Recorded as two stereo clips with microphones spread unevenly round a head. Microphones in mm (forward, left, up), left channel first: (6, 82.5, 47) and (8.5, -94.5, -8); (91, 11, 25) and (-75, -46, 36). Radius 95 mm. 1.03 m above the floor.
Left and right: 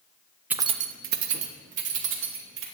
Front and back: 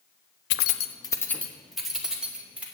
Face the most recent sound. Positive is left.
turn(degrees=-80)